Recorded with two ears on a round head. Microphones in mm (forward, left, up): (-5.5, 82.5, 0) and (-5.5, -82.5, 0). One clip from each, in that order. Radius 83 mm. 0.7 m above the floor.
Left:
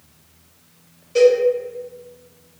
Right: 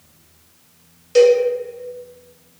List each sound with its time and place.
1.1 s a cowbell: 40° right (ahead or behind), 0.7 m